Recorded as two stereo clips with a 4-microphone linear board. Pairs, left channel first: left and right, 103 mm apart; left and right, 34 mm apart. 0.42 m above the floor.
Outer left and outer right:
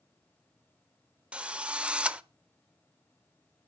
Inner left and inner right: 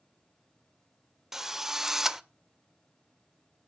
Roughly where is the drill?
Centre.